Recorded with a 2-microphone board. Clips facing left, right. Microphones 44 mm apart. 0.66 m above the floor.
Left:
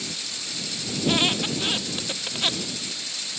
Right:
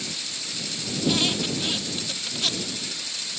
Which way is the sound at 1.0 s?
30° left (ahead or behind).